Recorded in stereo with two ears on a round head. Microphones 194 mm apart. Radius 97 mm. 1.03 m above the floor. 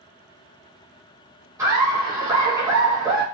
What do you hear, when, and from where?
1.6 s laughter: 15° right (ahead or behind), 1.4 m